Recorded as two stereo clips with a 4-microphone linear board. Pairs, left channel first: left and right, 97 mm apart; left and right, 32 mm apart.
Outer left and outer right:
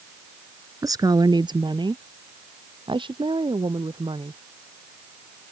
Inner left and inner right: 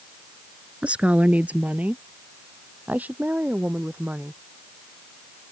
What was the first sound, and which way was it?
A woman speaking, 40° right (ahead or behind).